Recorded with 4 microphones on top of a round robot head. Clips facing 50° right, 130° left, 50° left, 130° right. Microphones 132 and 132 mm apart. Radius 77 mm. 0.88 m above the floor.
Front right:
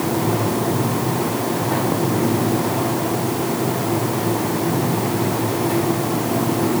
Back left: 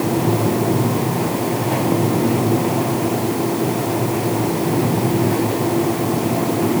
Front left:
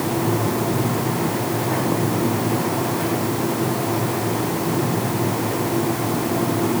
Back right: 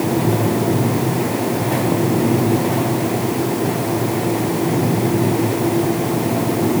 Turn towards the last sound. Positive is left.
No sound to turn to.